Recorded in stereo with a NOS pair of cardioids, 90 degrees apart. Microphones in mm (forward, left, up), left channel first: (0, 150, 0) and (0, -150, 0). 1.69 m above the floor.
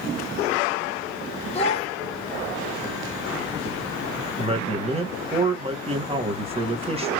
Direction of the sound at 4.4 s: 20° right.